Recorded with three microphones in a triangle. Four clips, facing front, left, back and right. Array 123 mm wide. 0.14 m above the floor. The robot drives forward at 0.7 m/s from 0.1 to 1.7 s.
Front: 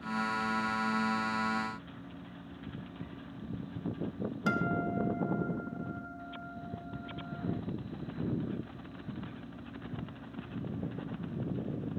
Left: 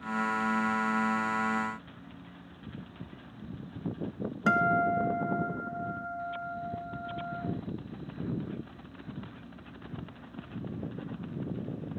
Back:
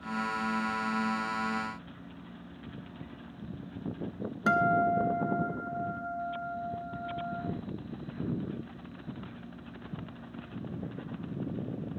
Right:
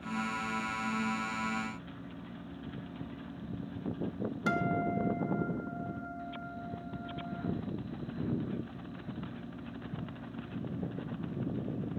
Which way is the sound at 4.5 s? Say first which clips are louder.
Left 6 dB, back 7 dB; 130° left.